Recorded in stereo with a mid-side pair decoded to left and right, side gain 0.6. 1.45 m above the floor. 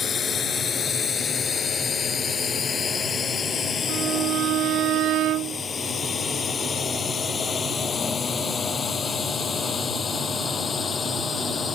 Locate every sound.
0.0 s a drone: 35° left; by 11.7 s 30° left
3.9 s a violin: 60° right